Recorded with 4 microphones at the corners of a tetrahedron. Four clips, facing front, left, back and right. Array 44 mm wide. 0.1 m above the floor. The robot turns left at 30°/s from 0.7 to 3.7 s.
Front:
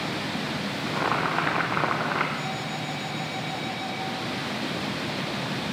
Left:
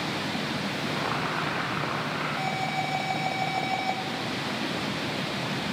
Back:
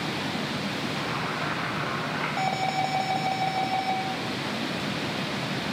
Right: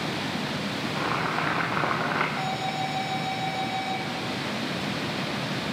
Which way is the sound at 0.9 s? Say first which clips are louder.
Right 3 dB, front 4 dB; straight ahead.